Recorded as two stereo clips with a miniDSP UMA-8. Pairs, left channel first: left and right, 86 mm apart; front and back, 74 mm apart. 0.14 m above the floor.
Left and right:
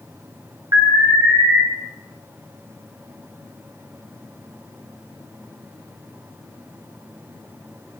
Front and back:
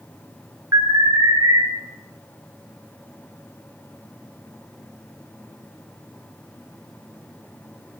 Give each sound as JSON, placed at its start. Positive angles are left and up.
{"t": 0.7, "sound": "an alarm", "azimuth_deg": -135, "distance_m": 2.5}